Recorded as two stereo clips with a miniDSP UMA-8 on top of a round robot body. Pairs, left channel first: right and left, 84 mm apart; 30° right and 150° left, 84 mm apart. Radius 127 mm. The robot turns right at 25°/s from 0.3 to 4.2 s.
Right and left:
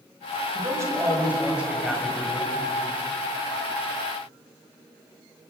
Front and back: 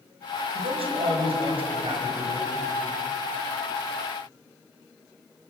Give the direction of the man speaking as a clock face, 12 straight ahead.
7 o'clock.